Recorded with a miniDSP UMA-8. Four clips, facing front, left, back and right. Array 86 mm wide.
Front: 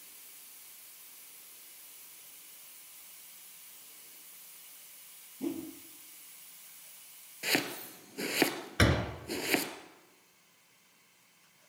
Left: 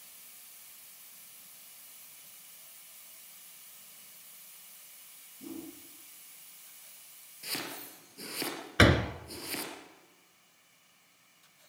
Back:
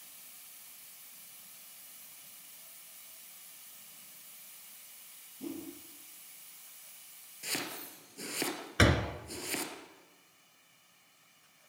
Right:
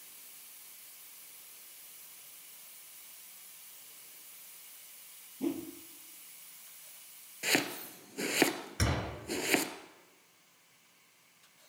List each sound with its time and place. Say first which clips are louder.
5.4 s a whoosh: right 8 dB, front 5 dB; 65° right, 3 m
7.4 s chopping: right 8 dB, front 7 dB; 55° right, 2.5 m
8.8 s a door slam: left 12 dB, back 1 dB; 95° left, 1.8 m